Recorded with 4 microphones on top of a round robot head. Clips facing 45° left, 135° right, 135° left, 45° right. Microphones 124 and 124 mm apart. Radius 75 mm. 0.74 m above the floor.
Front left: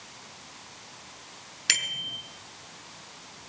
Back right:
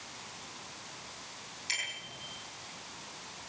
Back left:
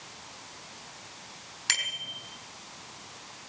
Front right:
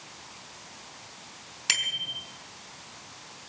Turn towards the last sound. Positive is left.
turn(degrees=35)